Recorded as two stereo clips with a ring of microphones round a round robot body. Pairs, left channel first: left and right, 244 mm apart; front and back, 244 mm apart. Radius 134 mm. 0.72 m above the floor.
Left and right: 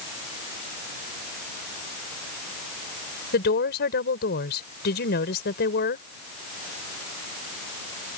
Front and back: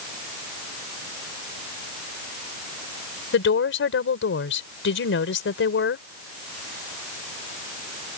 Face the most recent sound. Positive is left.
turn(degrees=35)